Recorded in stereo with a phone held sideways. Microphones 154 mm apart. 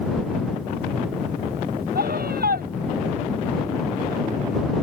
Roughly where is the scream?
Right.